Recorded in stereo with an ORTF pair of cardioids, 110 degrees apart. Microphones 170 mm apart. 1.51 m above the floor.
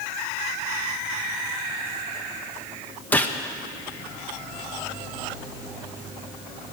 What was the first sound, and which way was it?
A gunshot, 10° left.